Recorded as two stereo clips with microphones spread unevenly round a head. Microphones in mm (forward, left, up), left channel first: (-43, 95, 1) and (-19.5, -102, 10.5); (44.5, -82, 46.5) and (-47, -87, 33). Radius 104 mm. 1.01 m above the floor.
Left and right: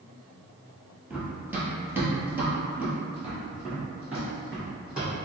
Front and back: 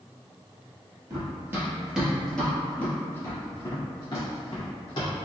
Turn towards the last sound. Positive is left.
turn(degrees=0)